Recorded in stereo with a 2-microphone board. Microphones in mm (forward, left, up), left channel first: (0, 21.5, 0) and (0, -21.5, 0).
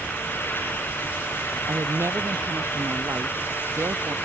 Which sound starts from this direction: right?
A woman speaking, at 1.7 s.